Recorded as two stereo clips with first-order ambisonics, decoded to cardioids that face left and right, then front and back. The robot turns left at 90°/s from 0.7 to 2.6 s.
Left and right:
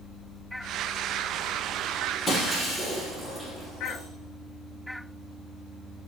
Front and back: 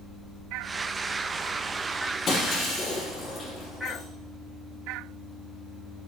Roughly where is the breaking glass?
Ahead left.